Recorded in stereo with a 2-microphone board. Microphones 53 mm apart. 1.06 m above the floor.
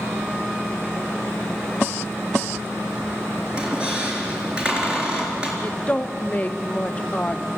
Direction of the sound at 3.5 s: 15° right (ahead or behind).